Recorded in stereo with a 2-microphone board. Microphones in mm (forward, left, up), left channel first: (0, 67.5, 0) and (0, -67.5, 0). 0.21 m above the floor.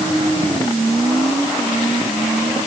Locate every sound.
Only background noise.